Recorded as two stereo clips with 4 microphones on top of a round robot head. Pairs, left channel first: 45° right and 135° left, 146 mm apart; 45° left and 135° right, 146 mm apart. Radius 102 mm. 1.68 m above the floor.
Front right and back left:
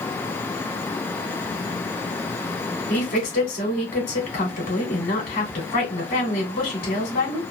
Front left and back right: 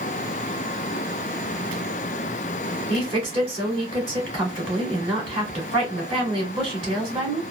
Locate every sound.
2.9 s a woman speaking: 80° right, 2 m